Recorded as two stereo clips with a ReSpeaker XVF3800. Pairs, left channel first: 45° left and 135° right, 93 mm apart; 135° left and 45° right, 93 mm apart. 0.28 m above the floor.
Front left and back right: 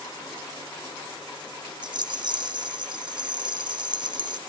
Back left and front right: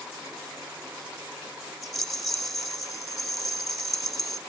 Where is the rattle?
135° right, 0.6 m.